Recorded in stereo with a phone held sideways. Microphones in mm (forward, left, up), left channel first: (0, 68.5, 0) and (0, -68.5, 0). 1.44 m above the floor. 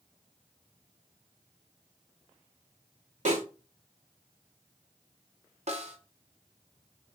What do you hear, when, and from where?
3.2 s a snare drum: 60° right (ahead or behind), 1.5 m
5.7 s a snare drum: 55° right (ahead or behind), 0.6 m